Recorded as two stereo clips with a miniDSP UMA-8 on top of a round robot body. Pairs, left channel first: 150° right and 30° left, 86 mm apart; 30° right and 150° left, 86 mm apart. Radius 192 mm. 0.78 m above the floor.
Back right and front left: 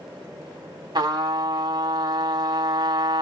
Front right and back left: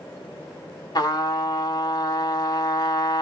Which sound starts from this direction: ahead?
A trumpet, at 0.9 s.